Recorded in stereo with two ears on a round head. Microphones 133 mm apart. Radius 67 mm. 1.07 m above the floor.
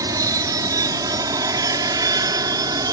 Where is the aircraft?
20° right (ahead or behind); by 2.9 s 25° right (ahead or behind).